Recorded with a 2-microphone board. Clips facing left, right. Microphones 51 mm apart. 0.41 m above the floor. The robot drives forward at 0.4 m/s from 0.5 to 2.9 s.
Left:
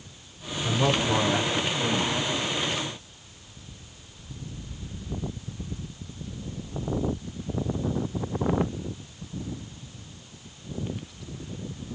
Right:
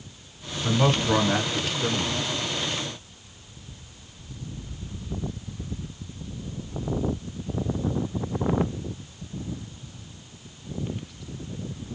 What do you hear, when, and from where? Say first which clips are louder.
0.6 s a man speaking: right 2 dB; 30° right (ahead or behind), 1.6 m; by 2.3 s 25° right (ahead or behind), 1.8 m